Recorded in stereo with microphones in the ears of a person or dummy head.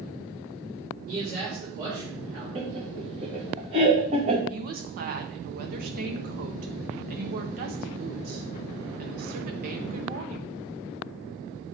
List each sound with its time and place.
1.1 s a man speaking: 50° right (ahead or behind), 3.5 m
2.5 s laughter: 35° right (ahead or behind), 2.5 m
4.5 s a woman speaking: 50° right (ahead or behind), 1.3 m